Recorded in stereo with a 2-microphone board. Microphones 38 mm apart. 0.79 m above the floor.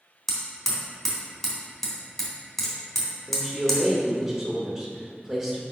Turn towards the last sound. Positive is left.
turn(degrees=-15)  # may be behind; listen again after turning